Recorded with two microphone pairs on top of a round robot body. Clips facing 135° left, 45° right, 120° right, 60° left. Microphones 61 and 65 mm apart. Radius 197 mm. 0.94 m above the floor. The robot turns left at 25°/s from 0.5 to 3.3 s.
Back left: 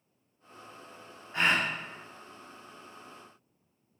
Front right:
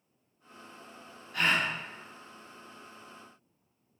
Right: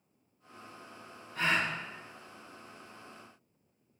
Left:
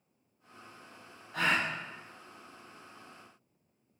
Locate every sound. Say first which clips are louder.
1.3 s a gasp: back left 1 dB, left 1 dB; 70° left, 0.7 m; by 1.7 s 60° left, 0.7 m